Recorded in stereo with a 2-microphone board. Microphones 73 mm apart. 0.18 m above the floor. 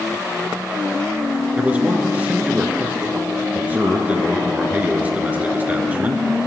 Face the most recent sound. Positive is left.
turn(degrees=-20)  # may be behind; listen again after turning